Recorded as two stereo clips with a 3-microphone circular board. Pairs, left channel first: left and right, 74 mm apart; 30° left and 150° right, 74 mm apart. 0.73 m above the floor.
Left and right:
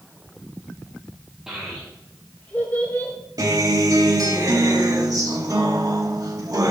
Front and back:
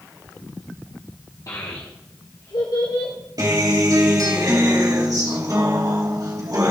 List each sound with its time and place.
1.5 s a child speaking: 10° right, 1.5 m; by 3.1 s 35° left, 2.5 m
3.4 s a guitar: 120° right, 2.5 m